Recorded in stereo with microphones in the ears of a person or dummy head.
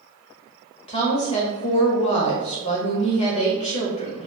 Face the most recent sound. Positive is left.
turn(degrees=30)  # may be behind; listen again after turning